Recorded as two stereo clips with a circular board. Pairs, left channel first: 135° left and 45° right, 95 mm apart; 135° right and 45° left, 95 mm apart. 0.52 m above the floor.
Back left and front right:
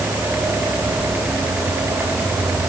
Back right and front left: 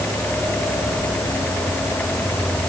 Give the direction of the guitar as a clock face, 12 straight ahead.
I don't hear a guitar.